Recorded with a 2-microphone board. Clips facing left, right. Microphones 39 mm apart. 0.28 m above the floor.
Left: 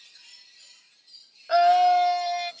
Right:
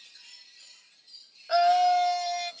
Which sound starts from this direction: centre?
A scream, at 1.5 s.